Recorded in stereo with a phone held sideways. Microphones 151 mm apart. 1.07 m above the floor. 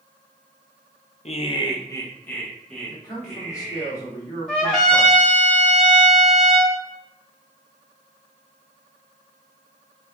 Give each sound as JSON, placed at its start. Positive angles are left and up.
{"t": 1.2, "sound": "laughter", "side_deg": 50, "distance_m": 0.5}
{"t": 2.9, "sound": "a man speaking", "side_deg": 20, "distance_m": 1.5}
{"t": 4.5, "sound": "a trumpet", "side_deg": 5, "distance_m": 1.0}